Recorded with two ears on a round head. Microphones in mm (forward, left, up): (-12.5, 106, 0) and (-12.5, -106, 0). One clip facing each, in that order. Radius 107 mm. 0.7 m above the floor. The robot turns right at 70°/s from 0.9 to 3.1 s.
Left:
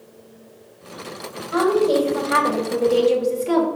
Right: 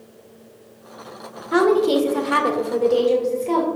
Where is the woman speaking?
100° right, 2 m; by 3.7 s 15° left, 2 m.